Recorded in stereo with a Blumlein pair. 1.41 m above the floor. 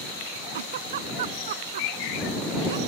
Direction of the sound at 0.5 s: 55° right.